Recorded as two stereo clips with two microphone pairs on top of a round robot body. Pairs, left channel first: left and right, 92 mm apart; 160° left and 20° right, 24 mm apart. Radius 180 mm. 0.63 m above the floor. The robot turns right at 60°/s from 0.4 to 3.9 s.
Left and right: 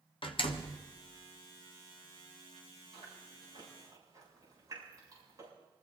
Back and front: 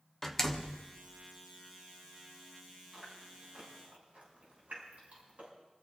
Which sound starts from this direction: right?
Chewing, at 2.9 s.